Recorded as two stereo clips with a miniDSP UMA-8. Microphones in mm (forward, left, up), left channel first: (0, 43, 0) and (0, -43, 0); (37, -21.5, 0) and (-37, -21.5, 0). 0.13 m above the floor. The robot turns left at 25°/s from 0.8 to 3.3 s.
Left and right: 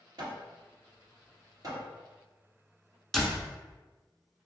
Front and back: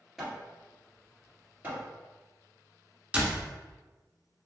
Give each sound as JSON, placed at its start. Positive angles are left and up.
{"t": 0.2, "sound": "hammering", "azimuth_deg": -95, "distance_m": 1.8}
{"t": 3.1, "sound": "a door slam", "azimuth_deg": 175, "distance_m": 1.1}